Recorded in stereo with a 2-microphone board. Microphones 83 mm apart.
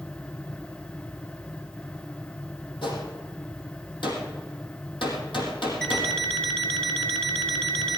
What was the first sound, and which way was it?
A gunshot, 80° left.